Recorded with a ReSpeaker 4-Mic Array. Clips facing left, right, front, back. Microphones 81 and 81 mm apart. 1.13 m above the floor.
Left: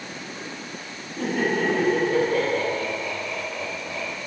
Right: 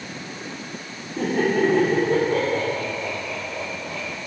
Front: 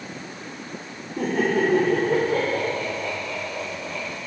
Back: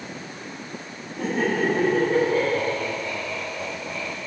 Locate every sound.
1.2 s laughter: 40° right, 3.5 m; by 4.0 s 35° right, 5 m